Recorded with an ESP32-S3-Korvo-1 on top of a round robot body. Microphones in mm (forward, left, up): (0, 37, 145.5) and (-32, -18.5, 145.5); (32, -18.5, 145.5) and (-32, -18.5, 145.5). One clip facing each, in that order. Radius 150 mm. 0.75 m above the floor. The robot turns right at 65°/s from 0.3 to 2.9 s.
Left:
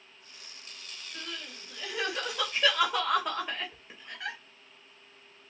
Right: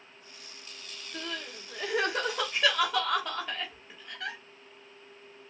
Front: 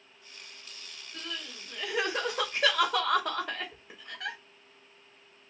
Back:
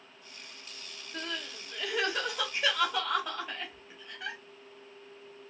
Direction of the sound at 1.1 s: 130° right.